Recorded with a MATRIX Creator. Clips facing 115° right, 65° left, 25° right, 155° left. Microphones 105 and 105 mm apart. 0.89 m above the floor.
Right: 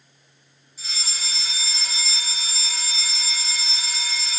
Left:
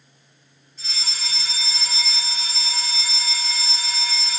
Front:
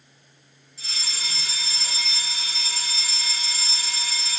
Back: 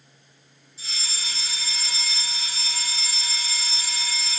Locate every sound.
0.8 s a fire alarm: 30° right, 4 m